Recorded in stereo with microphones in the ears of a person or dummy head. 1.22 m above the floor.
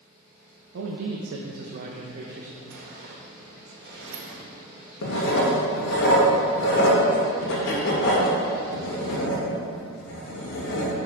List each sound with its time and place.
0.7 s a man speaking: 70° right (ahead or behind), 0.8 m; by 2.6 s 15° right (ahead or behind), 1.0 m
2.7 s a sliding door: 65° right (ahead or behind), 1.3 m
5.0 s writing: 70° left (ahead or behind), 1.9 m